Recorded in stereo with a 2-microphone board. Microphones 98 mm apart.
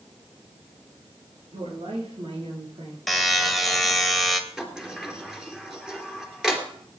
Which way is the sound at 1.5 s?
80° right.